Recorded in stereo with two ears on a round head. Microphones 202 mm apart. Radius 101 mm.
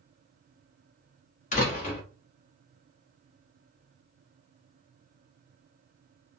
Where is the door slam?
35° left (ahead or behind), 1.0 m.